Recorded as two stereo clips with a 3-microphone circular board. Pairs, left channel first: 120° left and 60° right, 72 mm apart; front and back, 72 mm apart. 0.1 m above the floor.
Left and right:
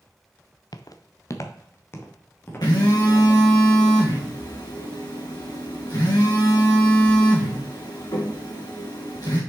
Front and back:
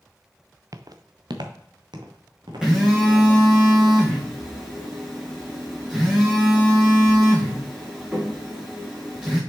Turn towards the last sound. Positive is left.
turn(degrees=100)